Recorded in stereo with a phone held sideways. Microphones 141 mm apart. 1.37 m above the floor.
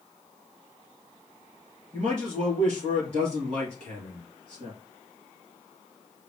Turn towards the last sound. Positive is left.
turn(degrees=-50)  # may be behind; listen again after turning